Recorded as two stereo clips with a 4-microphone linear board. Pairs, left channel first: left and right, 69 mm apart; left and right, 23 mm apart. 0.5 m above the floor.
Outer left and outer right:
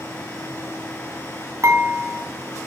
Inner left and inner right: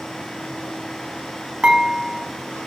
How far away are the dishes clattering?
About 2.5 m.